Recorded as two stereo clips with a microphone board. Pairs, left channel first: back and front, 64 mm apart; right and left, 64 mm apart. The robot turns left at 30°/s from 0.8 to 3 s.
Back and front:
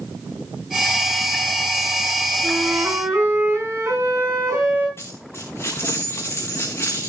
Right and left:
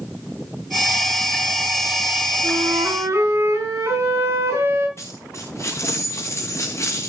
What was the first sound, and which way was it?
A flute, 65° left.